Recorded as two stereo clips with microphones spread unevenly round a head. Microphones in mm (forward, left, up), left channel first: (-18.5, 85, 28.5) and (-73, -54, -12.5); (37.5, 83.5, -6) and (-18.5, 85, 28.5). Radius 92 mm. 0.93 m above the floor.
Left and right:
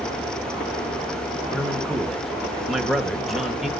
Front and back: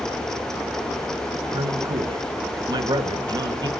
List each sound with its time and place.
1.5 s a man speaking: 170° left, 1.6 m